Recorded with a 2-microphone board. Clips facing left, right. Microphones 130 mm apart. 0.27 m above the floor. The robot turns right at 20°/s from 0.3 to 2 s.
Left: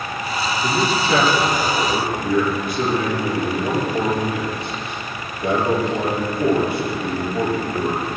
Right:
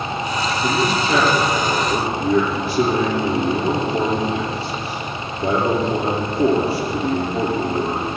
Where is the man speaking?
5° right (ahead or behind), 6 m; by 8.0 s 30° right (ahead or behind), 6 m.